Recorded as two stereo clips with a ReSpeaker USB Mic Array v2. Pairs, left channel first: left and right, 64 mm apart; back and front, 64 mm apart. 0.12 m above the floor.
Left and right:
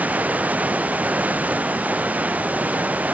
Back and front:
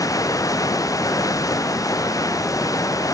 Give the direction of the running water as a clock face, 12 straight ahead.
5 o'clock.